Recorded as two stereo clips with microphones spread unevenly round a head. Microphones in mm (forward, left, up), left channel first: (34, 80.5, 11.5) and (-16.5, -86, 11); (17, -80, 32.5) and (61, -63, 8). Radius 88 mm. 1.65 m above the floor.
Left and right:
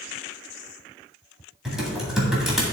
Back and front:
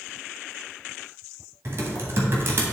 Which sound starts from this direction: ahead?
Typing on a keyboard, at 1.6 s.